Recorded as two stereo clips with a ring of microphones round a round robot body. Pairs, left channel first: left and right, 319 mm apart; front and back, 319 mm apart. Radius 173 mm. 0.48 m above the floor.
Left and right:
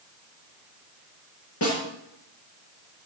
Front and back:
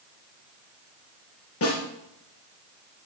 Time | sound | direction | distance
1.6 | a snare drum | 45° left | 5 m